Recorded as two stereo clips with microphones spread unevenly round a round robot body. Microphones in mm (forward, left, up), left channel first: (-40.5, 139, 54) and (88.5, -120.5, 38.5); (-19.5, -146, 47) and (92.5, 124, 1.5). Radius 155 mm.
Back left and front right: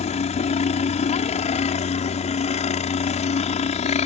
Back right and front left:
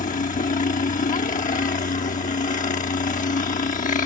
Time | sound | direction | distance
0.0 | a helicopter | straight behind | ?